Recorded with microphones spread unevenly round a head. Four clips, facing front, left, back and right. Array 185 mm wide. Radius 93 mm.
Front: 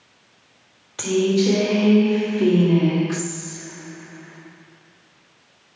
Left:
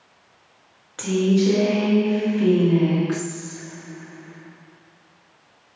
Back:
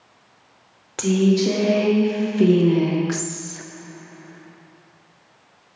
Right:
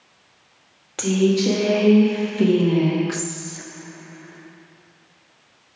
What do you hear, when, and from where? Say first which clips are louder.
1.0 s a woman speaking: right 1 dB, back 1 dB; 145° right, 1.9 m; by 3.6 s 120° right, 0.6 m